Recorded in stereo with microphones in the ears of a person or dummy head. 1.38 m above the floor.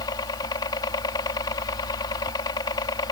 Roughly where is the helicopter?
Left.